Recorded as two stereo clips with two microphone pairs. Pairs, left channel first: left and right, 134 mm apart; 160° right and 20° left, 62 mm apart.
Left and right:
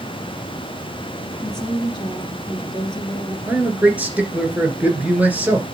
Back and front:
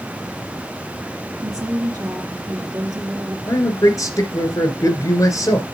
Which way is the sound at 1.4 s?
45° left.